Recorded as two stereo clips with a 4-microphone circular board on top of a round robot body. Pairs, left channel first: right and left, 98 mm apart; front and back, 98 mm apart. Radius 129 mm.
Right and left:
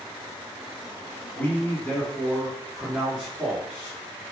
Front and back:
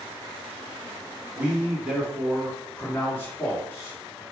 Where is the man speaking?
130° right, 1.5 m; by 4.2 s 25° left, 1.8 m.